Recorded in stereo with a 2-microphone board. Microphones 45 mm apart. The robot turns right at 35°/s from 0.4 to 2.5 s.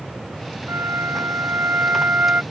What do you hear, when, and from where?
0.7 s a flute: 100° right; by 2.4 s 40° right